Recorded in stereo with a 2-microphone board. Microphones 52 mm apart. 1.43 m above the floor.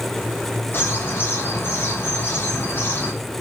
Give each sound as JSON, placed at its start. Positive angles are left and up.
{"t": 0.7, "sound": "a bird", "side_deg": 45, "distance_m": 6.5}